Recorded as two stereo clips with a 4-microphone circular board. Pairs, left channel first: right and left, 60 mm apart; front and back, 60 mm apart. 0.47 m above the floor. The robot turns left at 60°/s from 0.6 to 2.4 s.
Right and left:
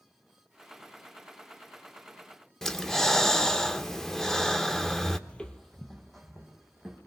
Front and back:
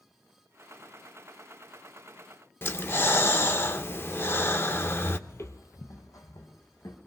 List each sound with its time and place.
2.6 s breathing: 10° right, 0.6 m
5.3 s footsteps: 25° right, 0.7 m; by 7.0 s straight ahead, 2 m